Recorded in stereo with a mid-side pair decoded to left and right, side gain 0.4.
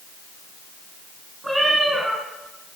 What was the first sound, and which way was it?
A cat meowing, 15° right.